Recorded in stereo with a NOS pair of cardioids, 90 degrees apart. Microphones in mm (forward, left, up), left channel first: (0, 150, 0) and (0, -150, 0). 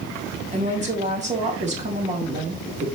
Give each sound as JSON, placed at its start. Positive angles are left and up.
{"t": 0.5, "sound": "a woman speaking", "azimuth_deg": -25, "distance_m": 3.0}